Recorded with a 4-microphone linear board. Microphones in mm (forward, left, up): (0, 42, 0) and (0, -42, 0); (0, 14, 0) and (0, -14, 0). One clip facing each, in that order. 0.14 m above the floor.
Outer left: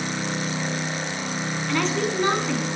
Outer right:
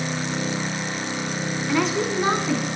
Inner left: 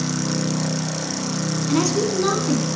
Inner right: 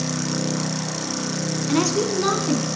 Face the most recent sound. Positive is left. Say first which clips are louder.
# outer right 2 dB, even
turn(degrees=-10)  # may be behind; listen again after turning